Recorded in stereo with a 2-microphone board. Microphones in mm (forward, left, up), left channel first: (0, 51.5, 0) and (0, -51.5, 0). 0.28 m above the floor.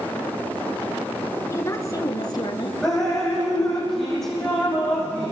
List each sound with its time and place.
1.5 s a woman speaking: 25° left (ahead or behind), 3.5 m; by 2.7 s 50° left (ahead or behind), 4 m
2.8 s dripping: 5° left (ahead or behind), 6.5 m